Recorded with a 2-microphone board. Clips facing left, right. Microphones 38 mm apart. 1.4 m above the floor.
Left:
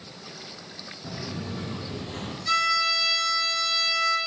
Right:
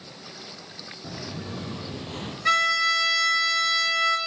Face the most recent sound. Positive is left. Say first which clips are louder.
# right 3 dB
turn(degrees=-75)  # may be behind; listen again after turning